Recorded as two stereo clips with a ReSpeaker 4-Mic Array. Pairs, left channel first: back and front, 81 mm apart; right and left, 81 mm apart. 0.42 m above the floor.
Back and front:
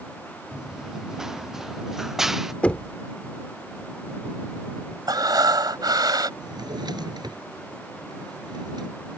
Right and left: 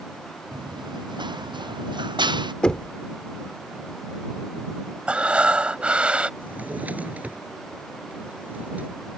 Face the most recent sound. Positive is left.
turn(degrees=20)